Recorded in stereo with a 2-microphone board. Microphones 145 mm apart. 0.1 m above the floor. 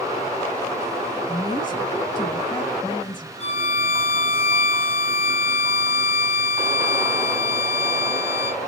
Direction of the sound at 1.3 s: 20° left (ahead or behind).